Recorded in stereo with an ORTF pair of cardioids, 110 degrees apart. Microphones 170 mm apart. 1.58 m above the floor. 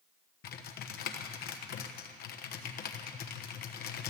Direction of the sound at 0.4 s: 65° left.